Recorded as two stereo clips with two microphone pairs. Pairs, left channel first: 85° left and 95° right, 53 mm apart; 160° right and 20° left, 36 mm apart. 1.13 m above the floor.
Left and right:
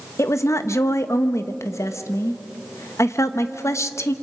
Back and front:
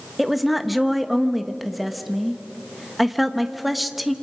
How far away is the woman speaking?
About 1.1 m.